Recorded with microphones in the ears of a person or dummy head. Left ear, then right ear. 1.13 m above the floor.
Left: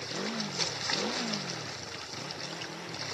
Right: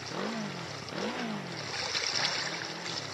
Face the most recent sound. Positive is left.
turn(degrees=-15)  # may be behind; listen again after turning